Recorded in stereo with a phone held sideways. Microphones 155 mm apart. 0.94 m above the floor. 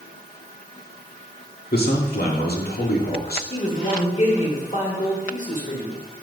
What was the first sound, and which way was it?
A man speaking, 70° left (ahead or behind).